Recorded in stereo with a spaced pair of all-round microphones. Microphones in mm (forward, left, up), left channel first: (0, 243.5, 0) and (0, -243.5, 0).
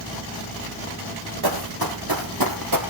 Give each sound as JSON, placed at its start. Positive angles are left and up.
{"t": 1.4, "sound": "running footsteps", "side_deg": -45, "distance_m": 2.5}